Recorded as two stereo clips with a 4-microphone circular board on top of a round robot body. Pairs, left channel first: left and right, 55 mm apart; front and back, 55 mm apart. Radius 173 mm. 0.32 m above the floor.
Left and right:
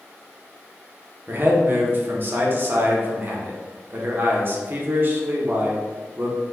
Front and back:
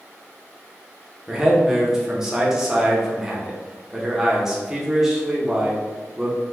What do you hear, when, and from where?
1.3 s a man speaking: 105° right, 1.4 m